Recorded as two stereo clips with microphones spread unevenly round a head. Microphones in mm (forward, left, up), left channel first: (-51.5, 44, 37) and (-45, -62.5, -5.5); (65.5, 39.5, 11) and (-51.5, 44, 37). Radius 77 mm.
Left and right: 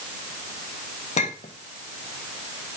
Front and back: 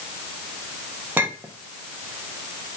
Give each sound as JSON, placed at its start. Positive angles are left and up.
{"t": 1.2, "sound": "a clink", "azimuth_deg": 105, "distance_m": 1.0}